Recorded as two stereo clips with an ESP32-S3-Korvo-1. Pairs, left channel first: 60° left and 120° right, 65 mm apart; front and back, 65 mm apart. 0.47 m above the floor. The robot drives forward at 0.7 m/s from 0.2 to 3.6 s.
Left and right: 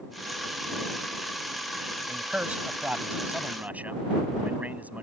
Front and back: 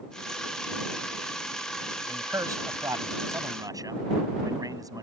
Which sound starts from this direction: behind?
A man speaking, at 2.1 s.